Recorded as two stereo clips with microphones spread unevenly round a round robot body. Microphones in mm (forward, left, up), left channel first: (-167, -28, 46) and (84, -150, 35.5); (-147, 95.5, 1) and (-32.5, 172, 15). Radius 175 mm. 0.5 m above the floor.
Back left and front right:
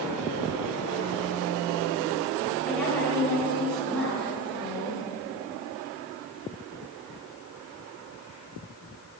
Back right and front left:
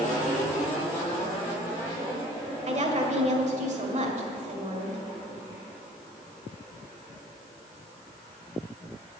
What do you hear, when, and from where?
2.7 s a woman speaking: 65° left, 2 m